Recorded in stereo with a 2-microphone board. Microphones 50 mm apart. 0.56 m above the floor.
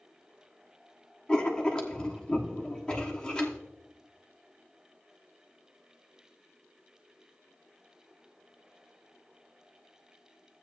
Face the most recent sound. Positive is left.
turn(degrees=20)  # may be behind; listen again after turning